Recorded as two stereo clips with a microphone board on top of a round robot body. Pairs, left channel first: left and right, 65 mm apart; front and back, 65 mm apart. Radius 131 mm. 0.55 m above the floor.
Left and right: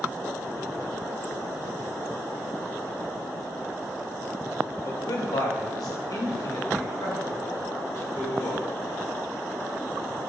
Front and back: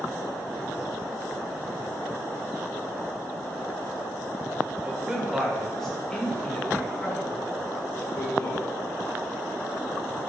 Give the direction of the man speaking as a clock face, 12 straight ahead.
8 o'clock.